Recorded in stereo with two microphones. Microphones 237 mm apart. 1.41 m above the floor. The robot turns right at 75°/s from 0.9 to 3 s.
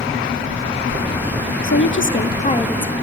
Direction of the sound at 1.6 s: 80° left.